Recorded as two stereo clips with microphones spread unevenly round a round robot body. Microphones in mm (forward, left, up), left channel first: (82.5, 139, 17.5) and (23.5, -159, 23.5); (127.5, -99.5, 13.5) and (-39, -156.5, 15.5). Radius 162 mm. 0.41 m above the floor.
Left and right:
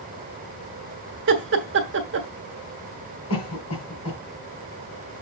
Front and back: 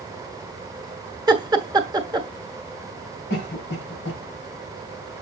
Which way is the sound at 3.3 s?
40° left.